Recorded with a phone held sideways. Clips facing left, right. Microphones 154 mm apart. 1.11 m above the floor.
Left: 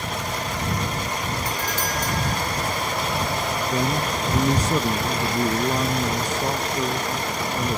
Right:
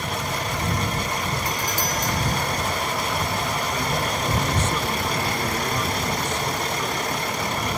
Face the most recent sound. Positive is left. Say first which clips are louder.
# left 2 dB
turn(degrees=40)  # may be behind; listen again after turning